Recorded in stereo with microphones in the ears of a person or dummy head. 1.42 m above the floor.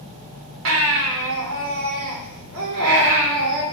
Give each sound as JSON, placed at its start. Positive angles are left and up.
{"t": 0.7, "sound": "a baby crying", "side_deg": -70, "distance_m": 2.0}